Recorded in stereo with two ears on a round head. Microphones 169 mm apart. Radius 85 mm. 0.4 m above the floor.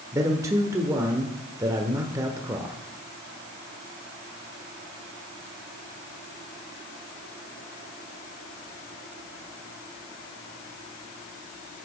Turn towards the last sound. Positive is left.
turn(degrees=-15)  # may be behind; listen again after turning